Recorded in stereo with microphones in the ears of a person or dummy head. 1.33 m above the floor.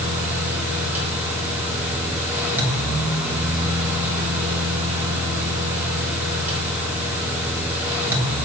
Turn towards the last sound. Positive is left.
turn(degrees=-10)  # may be behind; listen again after turning